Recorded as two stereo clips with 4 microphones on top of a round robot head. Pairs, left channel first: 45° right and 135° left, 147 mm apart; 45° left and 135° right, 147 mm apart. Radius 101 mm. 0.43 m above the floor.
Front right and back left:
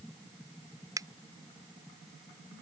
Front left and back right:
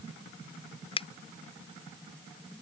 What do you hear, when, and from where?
1.0 s a finger snap: 75° left